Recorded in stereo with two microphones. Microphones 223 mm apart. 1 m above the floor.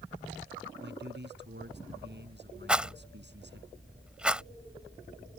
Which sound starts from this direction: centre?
A rattle, at 2.7 s.